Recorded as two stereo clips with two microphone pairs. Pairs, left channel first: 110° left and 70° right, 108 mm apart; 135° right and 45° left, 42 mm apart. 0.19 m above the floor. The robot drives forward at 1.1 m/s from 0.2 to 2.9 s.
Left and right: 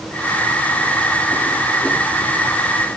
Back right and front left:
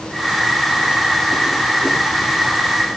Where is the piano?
No piano in this recording.